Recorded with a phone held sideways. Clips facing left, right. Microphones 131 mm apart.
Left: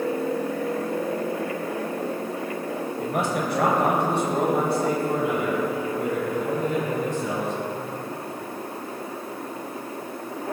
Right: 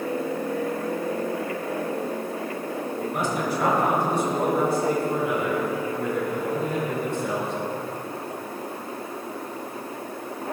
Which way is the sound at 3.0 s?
75° left (ahead or behind).